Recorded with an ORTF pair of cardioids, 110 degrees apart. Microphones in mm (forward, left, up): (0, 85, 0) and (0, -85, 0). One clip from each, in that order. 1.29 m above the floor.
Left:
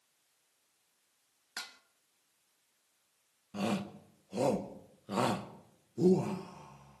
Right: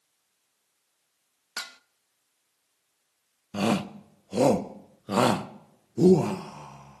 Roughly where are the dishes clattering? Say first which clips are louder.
Right 7 dB; ahead right.